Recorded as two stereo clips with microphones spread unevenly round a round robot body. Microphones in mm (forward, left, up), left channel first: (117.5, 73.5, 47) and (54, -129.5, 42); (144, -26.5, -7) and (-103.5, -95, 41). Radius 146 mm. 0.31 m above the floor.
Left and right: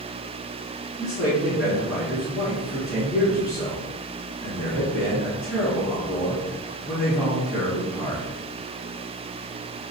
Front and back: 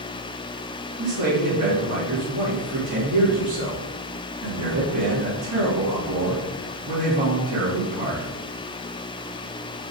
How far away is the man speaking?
About 3.5 m.